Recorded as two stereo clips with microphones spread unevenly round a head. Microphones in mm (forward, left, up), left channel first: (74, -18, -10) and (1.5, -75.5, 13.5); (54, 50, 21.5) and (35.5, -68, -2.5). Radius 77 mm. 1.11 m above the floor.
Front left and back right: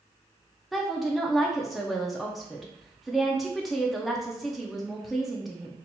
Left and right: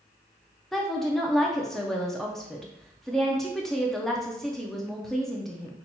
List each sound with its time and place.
0.7 s a woman speaking: 25° right, 0.5 m